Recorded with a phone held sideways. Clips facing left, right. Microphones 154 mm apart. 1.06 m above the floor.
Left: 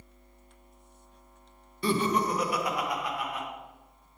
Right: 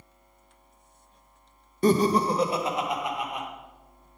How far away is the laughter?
About 0.6 m.